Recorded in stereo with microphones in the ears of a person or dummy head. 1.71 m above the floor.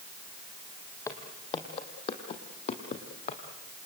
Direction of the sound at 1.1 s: 20° left (ahead or behind).